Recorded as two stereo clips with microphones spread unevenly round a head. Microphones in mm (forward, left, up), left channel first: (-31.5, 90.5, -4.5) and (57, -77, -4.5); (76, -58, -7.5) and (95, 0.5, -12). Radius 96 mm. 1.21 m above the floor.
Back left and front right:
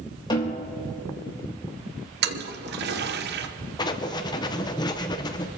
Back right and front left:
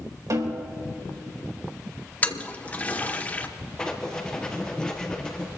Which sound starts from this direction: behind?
Writing, at 3.8 s.